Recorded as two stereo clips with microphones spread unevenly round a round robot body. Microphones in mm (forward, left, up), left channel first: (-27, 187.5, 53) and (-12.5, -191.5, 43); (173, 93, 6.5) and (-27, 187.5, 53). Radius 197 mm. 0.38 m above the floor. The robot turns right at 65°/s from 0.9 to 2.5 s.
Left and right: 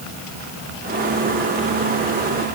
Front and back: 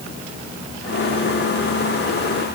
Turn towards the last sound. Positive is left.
No sound to turn to.